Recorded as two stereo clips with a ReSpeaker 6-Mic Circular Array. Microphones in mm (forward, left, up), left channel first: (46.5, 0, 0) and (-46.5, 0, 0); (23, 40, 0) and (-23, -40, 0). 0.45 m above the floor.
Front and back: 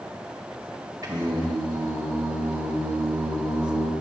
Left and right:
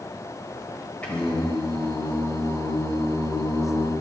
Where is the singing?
135° left, 2 m.